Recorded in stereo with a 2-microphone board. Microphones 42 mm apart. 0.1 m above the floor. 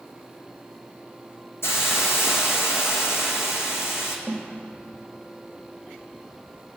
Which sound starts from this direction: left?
A hiss, at 1.6 s.